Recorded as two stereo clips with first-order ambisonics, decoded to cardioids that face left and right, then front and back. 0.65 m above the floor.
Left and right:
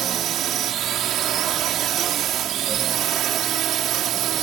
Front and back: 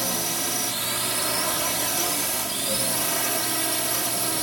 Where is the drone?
100° right.